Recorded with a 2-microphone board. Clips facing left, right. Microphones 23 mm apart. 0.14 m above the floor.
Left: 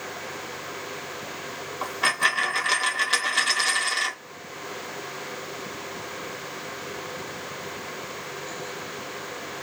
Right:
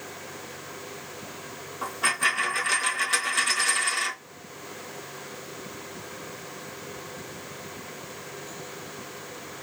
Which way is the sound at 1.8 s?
30° left (ahead or behind).